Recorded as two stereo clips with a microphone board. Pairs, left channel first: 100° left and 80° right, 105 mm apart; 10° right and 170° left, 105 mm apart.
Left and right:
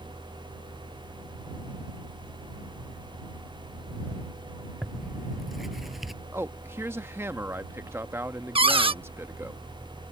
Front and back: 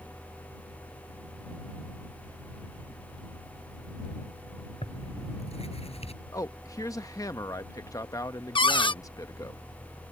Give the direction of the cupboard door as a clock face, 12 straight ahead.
2 o'clock.